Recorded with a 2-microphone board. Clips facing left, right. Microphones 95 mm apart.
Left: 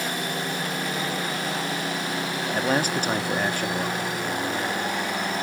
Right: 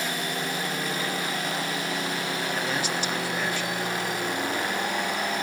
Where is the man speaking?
50° left (ahead or behind), 1.3 m.